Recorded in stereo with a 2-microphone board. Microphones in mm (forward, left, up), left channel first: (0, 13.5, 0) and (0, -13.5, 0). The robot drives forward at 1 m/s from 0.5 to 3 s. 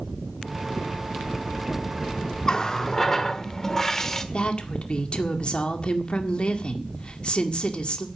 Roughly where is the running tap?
Left.